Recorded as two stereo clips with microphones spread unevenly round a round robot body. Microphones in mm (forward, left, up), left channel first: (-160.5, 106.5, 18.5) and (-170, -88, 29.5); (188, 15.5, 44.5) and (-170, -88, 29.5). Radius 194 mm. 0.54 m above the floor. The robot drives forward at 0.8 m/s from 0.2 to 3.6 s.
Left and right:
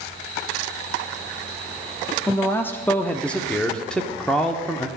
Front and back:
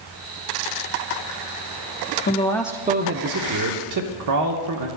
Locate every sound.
2.3 s a man speaking: 30° left, 0.6 m; by 4.9 s 170° left, 1.0 m